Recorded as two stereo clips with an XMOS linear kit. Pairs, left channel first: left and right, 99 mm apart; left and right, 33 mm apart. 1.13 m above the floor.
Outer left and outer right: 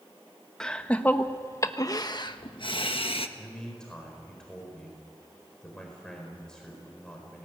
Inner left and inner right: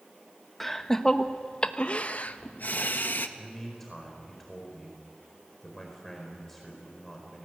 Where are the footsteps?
I don't hear footsteps.